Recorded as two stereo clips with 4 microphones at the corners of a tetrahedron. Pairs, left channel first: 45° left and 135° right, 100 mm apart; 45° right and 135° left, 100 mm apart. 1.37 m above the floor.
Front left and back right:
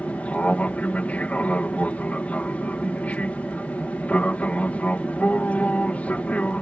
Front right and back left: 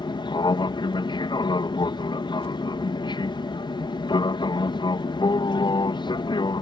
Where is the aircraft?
30° right.